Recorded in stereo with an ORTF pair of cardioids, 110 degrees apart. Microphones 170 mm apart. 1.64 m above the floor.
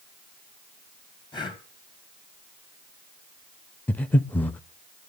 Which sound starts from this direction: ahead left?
Breathing, at 1.3 s.